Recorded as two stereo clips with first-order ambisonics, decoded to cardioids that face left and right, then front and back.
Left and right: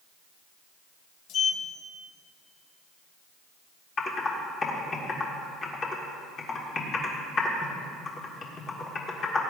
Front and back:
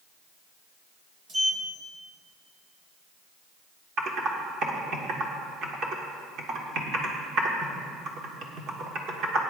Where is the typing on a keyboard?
145° left, 1.5 m.